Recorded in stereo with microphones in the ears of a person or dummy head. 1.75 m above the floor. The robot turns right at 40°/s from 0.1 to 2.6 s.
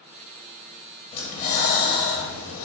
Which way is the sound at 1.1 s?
40° left.